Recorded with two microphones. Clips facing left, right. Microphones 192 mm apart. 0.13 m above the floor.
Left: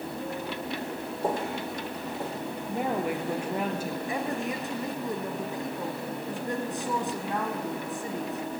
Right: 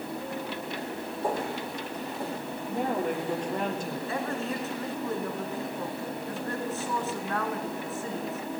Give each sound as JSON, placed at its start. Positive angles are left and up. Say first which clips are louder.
{"t": 1.2, "sound": "footsteps", "louder": "left 1 dB", "side_deg": 25, "distance_m": 4.0}
{"t": 2.7, "sound": "a woman speaking", "louder": "even", "side_deg": 5, "distance_m": 2.0}
{"t": 4.1, "sound": "a woman speaking", "louder": "even", "side_deg": 15, "distance_m": 1.6}